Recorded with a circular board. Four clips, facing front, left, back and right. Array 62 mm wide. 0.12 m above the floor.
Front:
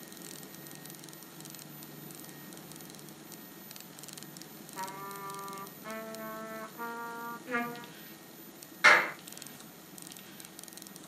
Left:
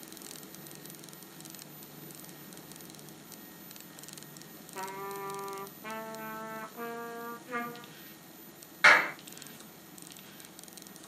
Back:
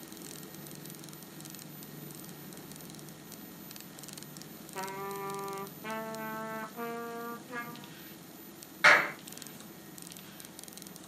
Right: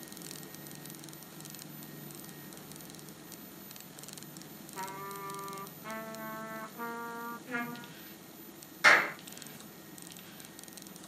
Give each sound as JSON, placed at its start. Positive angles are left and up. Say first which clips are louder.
{"t": 4.8, "sound": "a trumpet", "louder": "left 2 dB, back 3 dB", "azimuth_deg": 150, "distance_m": 0.5}
{"t": 7.5, "sound": "a trumpet", "louder": "left 1 dB, front 6 dB", "azimuth_deg": -15, "distance_m": 0.5}
{"t": 8.8, "sound": "a clap", "louder": "left 2 dB, even", "azimuth_deg": 105, "distance_m": 1.7}